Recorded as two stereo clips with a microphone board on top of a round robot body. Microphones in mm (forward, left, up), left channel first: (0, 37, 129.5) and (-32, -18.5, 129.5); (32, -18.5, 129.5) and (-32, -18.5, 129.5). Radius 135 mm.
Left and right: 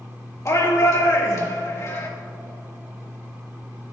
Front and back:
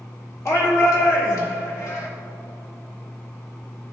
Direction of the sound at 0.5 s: 30° left.